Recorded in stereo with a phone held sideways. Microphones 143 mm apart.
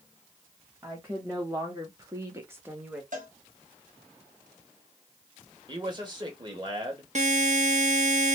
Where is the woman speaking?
20° right (ahead or behind), 1.5 m; by 3.0 s 10° right (ahead or behind), 1.2 m.